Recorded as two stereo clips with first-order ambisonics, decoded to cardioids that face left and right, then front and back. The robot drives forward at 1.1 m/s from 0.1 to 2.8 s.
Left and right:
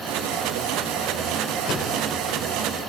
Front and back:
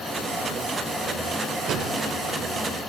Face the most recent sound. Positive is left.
turn(degrees=145)